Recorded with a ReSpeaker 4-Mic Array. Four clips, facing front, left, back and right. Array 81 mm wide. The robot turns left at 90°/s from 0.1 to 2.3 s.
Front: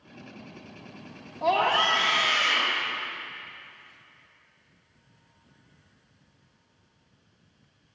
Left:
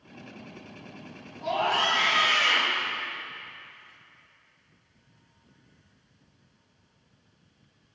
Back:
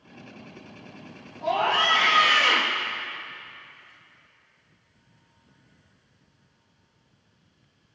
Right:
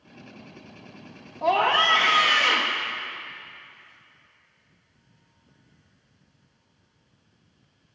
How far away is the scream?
About 2 m.